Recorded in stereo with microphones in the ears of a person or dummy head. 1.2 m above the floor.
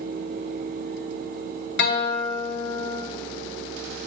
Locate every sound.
1.8 s a guitar: 50° left (ahead or behind), 0.6 m